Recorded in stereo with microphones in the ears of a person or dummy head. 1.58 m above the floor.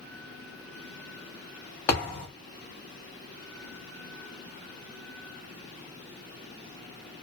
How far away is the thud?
About 0.9 m.